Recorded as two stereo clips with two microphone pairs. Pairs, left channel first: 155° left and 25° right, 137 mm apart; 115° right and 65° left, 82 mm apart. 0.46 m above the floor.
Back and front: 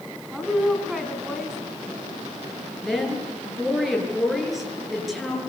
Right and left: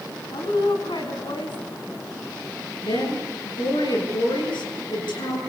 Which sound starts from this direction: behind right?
A woman speaking, at 2.8 s.